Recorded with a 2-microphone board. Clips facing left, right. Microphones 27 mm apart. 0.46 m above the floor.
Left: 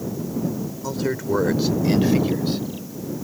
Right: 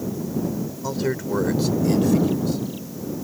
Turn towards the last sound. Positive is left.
turn(degrees=45)  # may be behind; listen again after turning